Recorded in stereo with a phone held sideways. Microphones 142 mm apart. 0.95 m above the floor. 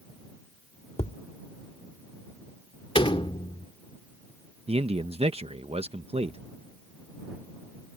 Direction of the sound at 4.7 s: 45° right (ahead or behind).